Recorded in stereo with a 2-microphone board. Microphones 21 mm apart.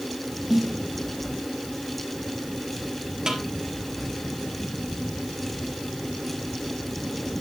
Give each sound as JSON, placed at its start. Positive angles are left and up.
{"t": 0.5, "sound": "a snare drum", "side_deg": -20, "distance_m": 1.0}
{"t": 3.3, "sound": "a snare drum", "side_deg": -35, "distance_m": 4.0}